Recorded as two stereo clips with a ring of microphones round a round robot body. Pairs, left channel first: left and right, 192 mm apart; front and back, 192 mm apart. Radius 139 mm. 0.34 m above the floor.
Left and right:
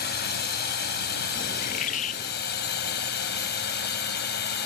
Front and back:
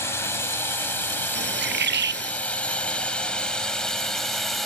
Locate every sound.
0.0 s a drone: 75° left; by 4.7 s 90° left
1.4 s a bird: 155° left